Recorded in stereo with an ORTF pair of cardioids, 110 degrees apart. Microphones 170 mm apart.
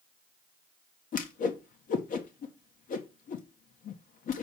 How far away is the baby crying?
No baby crying in this recording.